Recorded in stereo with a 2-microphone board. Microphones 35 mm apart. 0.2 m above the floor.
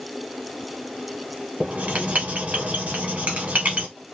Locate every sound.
1.6 s writing: 45° right (ahead or behind), 0.9 m